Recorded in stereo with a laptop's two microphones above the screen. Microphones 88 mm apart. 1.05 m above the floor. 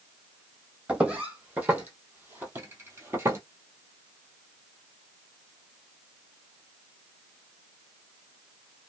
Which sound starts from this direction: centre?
Footsteps, at 0.9 s.